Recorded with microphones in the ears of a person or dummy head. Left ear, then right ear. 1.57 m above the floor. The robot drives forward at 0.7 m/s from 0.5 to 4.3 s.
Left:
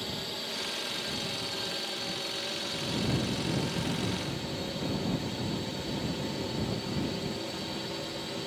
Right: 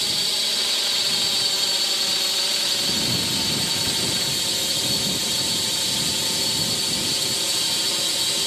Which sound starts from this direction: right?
A drone, at 0.0 s.